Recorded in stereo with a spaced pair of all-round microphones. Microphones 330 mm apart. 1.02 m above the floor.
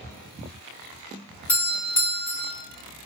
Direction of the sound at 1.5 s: 60° left (ahead or behind).